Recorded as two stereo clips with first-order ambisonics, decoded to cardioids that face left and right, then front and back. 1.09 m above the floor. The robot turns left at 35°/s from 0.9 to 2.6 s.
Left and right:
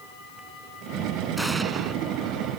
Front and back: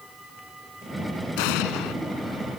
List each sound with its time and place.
1.4 s an explosion: straight ahead; by 1.9 s 25° right